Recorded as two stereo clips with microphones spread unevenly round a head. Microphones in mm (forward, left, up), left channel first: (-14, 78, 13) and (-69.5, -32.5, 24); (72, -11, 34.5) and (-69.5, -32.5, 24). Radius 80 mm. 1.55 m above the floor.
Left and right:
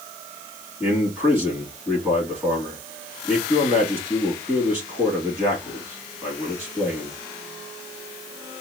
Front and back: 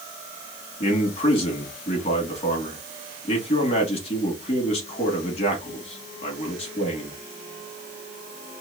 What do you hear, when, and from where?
0.8 s a man speaking: 40° right, 3 m